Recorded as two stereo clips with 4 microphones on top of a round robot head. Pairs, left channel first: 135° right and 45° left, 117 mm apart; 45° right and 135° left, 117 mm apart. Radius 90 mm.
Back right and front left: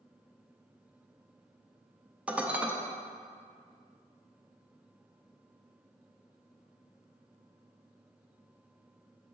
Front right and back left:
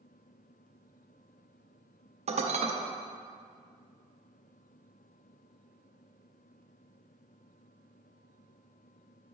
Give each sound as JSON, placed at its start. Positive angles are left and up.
{"t": 2.3, "sound": "dishes clattering", "azimuth_deg": 120, "distance_m": 0.6}